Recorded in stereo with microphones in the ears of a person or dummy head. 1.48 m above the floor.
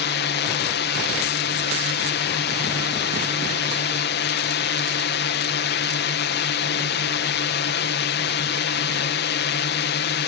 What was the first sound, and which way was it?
A drone, 50° left (ahead or behind).